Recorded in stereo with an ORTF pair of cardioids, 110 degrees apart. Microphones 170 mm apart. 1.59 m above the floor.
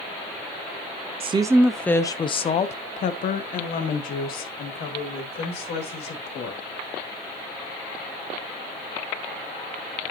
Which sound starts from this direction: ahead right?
A woman speaking, at 1.2 s.